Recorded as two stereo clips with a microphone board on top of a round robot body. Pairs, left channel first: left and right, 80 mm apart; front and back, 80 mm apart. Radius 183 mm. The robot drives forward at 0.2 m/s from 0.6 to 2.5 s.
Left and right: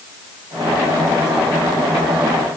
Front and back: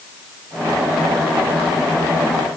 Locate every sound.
Only background noise.